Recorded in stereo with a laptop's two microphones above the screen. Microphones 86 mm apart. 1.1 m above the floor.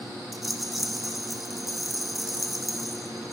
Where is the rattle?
Centre (ahead or behind), 1.2 m.